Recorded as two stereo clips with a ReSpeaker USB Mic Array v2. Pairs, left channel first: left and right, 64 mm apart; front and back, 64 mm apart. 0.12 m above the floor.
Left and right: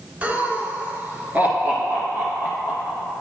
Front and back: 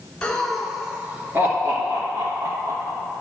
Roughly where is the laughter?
Ahead right.